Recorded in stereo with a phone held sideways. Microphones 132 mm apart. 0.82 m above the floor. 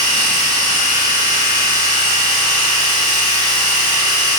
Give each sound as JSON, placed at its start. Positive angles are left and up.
{"t": 0.0, "sound": "a machine running", "side_deg": -30, "distance_m": 4.5}